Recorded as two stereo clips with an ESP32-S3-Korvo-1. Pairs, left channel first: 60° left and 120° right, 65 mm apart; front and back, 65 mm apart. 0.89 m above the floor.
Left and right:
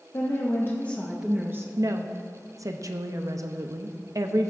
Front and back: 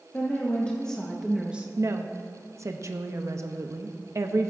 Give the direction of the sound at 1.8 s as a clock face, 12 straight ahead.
5 o'clock.